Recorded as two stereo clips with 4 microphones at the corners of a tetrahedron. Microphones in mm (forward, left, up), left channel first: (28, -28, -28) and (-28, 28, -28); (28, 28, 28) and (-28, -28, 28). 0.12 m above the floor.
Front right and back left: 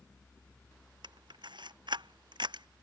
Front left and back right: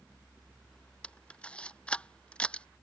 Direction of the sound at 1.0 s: 120° left.